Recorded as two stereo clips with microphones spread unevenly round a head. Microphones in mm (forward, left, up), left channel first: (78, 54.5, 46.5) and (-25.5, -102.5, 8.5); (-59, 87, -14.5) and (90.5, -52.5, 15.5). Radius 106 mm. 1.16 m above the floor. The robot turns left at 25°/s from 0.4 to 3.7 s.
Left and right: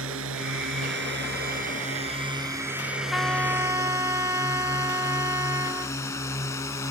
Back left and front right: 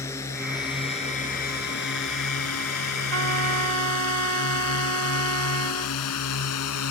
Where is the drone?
145° right; by 6.9 s 135° left.